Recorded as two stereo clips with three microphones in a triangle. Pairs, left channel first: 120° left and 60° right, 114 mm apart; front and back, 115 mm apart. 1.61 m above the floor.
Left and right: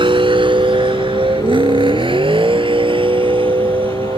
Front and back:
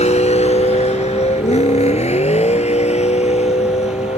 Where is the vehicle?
15° right; by 4.2 s 20° right.